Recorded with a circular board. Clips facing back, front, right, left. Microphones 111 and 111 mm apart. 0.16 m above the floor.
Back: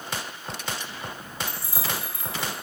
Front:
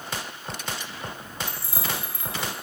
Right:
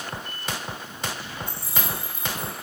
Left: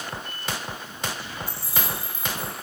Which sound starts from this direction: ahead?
Keys jangling, at 1.5 s.